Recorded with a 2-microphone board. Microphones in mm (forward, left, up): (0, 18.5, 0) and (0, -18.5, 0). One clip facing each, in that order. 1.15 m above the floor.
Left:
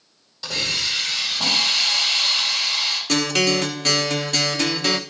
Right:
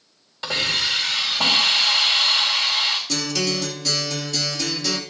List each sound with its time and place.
0.4 s a hiss: 45° right (ahead or behind), 4.5 m
3.1 s a guitar: 60° left (ahead or behind), 1.1 m